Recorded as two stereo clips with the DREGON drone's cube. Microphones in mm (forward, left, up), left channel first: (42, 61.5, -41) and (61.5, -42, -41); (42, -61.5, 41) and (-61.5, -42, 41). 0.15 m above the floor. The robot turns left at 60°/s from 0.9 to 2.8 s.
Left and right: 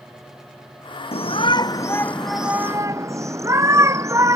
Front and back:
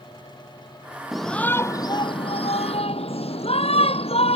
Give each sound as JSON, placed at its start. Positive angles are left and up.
{"t": 1.1, "sound": "a shout", "azimuth_deg": 80}